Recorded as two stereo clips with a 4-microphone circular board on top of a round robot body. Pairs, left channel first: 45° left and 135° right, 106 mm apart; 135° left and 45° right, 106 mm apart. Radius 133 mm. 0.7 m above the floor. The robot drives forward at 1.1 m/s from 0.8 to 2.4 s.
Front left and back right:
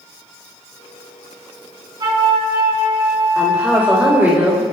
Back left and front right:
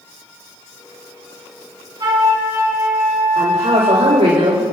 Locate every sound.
2.0 s a flute: 90° right, 2 m; by 4.3 s 100° right, 2 m
3.4 s a woman speaking: 60° right, 4 m